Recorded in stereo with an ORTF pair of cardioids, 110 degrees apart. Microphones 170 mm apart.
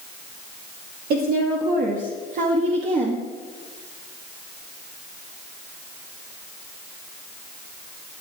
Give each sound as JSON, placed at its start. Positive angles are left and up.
{"t": 1.1, "sound": "a woman speaking", "azimuth_deg": -65, "distance_m": 2.5}